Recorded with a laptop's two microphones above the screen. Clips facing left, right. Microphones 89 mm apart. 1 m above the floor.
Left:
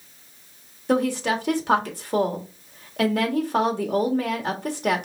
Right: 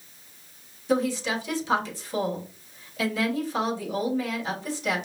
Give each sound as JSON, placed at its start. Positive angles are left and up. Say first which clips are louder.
{"t": 0.9, "sound": "a woman speaking", "louder": "left 3 dB", "side_deg": 55, "distance_m": 1.8}